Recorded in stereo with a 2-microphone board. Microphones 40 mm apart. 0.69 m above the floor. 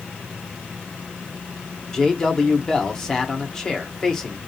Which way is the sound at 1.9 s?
15° left (ahead or behind).